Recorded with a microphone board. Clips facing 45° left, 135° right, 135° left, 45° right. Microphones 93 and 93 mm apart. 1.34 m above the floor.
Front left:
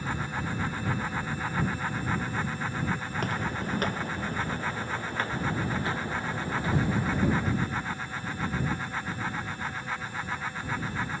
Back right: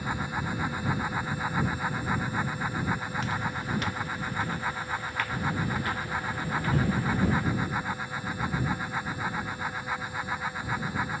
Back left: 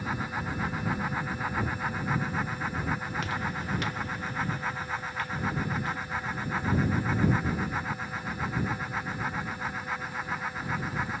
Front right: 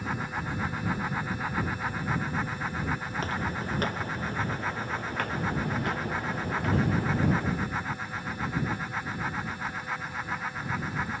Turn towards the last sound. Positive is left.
turn(degrees=-30)